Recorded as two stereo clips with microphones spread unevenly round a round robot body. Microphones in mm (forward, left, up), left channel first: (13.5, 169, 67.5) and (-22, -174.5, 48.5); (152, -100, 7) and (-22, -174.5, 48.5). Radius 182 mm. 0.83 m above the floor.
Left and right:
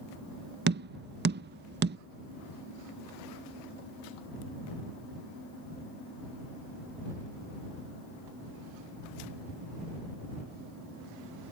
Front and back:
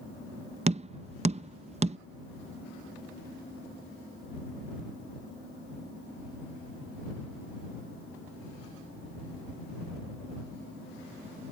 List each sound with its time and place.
0.7 s tapping: 105° right